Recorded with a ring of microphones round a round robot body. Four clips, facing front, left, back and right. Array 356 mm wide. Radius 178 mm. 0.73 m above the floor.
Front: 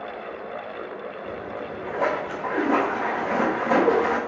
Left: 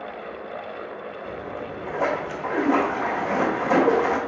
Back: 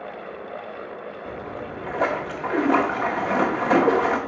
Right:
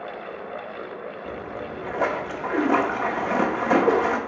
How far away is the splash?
About 1.1 m.